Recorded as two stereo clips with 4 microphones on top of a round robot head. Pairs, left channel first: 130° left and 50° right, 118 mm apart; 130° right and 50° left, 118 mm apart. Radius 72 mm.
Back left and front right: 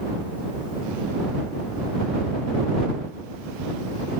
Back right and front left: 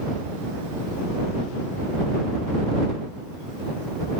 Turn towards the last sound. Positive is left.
No sound to turn to.